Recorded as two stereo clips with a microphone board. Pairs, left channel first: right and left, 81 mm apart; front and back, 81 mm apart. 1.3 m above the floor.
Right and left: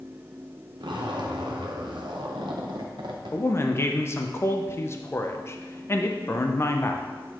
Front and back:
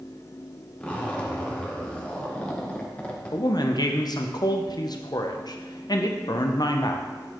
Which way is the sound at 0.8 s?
75° left.